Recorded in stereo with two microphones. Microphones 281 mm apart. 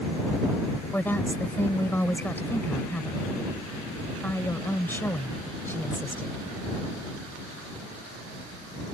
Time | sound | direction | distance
0.9 | a woman speaking | 10° left (ahead or behind) | ?